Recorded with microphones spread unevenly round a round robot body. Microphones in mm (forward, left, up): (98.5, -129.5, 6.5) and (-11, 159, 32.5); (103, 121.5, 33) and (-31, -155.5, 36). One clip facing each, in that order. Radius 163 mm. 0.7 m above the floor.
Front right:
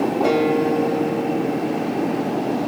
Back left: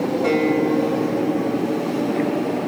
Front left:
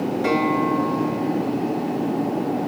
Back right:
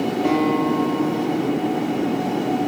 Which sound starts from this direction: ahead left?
A guitar, at 0.2 s.